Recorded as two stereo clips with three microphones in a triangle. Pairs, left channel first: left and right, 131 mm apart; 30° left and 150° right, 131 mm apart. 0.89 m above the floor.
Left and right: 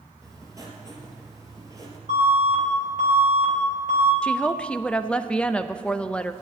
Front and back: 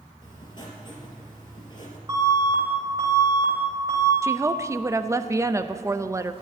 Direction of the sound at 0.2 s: 25° right.